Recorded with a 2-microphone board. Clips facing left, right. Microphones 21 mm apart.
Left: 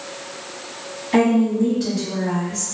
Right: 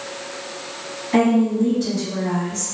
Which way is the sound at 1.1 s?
30° left (ahead or behind).